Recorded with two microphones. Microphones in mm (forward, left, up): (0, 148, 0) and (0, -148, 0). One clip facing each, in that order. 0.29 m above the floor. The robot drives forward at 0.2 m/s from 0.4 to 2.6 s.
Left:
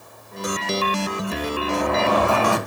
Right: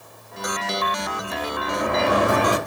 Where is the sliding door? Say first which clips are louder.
Even; 20° right (ahead or behind), 1.9 m.